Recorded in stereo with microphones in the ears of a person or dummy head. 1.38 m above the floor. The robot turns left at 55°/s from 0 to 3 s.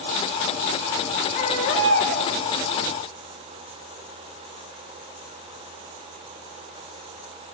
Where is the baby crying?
145° left, 6 m; by 2.3 s 90° left, 6 m.